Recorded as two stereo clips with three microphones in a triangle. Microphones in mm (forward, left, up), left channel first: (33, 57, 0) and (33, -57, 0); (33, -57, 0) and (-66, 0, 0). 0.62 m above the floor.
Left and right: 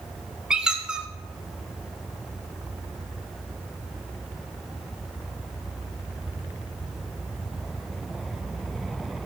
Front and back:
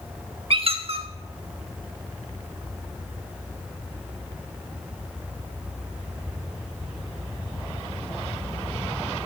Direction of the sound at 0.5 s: 170° right.